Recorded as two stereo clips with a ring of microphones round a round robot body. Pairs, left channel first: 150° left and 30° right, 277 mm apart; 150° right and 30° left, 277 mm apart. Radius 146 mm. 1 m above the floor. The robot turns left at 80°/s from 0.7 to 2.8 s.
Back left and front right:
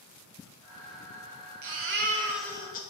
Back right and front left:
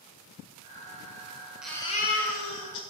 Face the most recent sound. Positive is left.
turn(degrees=-150)